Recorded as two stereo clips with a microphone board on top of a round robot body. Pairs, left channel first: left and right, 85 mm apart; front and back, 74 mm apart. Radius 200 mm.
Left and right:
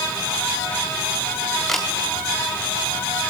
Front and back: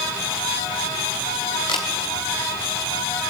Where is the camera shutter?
5° left, 0.7 m.